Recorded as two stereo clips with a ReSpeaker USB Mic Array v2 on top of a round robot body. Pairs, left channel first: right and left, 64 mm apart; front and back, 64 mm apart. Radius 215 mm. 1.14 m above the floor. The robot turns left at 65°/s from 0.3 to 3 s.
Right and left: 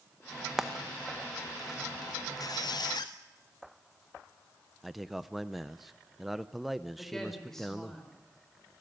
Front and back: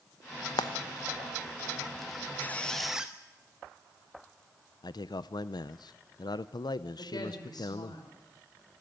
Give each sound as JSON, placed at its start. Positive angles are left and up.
{"t": 0.6, "sound": "frying", "azimuth_deg": 5, "distance_m": 0.7}
{"t": 2.4, "sound": "a squeak", "azimuth_deg": -60, "distance_m": 0.7}
{"t": 4.8, "sound": "a man speaking", "azimuth_deg": 0, "distance_m": 0.6}
{"t": 7.0, "sound": "a woman speaking", "azimuth_deg": -5, "distance_m": 6.0}